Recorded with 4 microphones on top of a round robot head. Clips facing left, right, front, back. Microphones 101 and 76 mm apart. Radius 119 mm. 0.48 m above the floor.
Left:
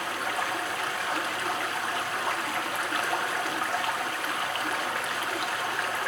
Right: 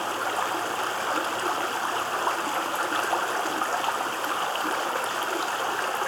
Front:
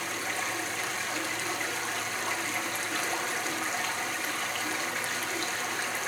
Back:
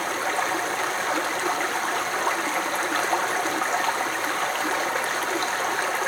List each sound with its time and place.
0.0 s running water: 145° right, 1.1 m